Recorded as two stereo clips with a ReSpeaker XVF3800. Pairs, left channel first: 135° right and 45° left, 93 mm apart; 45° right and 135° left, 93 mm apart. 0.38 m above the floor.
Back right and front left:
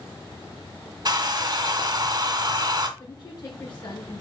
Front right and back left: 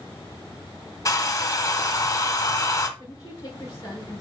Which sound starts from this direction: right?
A woman speaking, at 3.0 s.